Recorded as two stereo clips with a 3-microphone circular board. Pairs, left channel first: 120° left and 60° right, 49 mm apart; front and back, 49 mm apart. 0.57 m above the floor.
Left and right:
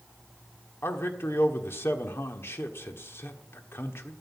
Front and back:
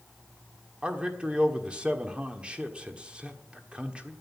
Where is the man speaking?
115° left, 1.4 m.